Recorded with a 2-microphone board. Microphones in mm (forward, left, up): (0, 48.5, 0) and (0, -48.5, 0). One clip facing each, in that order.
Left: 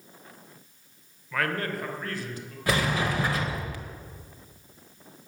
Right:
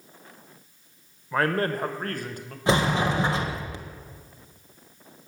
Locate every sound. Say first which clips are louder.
1.3 s a man speaking: right 5 dB; 30° right (ahead or behind), 1.4 m; by 2.6 s 55° right (ahead or behind), 2 m
2.7 s a sliding door: right 4 dB; 25° right (ahead or behind), 1.5 m